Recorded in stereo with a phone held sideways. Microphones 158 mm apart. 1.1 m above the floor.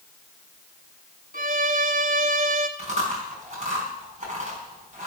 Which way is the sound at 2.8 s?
50° right (ahead or behind).